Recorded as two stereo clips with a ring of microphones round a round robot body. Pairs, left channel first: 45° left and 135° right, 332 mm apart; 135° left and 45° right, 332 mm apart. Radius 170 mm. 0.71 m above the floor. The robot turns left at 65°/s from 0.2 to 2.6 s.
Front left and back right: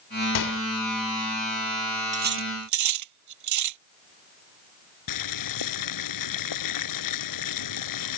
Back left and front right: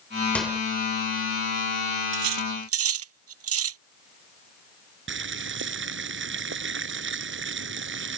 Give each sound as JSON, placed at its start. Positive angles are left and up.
{"t": 0.3, "sound": "a microwave", "azimuth_deg": 50}
{"t": 2.1, "sound": "cutlery clinking", "azimuth_deg": -65}
{"t": 5.1, "sound": "boiling", "azimuth_deg": 10}